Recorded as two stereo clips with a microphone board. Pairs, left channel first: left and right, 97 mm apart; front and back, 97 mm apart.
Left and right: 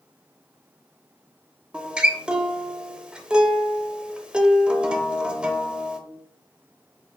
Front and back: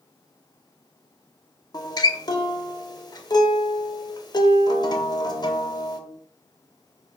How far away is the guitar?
About 0.5 m.